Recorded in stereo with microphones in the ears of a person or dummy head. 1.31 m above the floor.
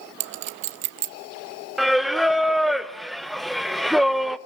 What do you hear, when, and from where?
0.2 s a clink: 35° right (ahead or behind), 0.8 m
1.8 s singing: centre (ahead or behind), 0.5 m